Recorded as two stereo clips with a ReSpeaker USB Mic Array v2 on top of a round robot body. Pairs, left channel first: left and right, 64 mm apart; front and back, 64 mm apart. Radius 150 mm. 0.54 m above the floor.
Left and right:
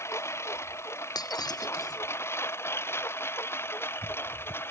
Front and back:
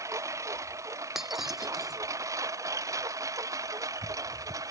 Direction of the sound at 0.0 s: 140° left.